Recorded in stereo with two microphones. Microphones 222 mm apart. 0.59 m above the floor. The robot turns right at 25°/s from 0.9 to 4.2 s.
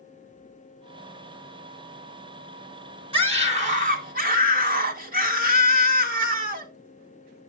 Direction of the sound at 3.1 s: 25° right (ahead or behind).